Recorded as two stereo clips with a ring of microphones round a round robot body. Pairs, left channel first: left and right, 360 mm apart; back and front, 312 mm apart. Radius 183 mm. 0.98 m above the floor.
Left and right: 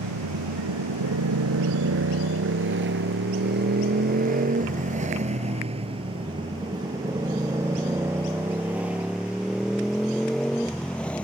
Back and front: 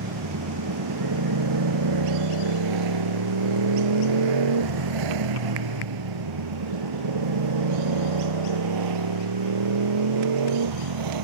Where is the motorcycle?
45° right; by 11.2 s 5° left.